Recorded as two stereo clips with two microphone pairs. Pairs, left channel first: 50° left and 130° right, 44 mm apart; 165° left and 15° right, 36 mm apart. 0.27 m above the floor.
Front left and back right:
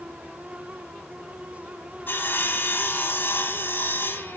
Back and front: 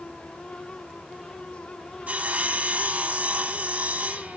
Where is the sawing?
30° left, 1.0 m.